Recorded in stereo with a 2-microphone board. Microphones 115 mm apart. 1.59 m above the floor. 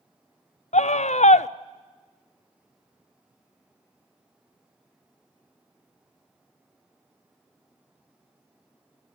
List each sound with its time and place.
0.7 s a scream: 75° left (ahead or behind), 0.5 m